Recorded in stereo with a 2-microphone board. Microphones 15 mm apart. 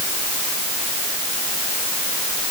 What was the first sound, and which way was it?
Only background noise.